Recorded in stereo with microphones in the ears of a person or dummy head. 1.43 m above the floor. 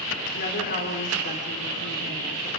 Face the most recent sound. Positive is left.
turn(degrees=55)  # may be behind; listen again after turning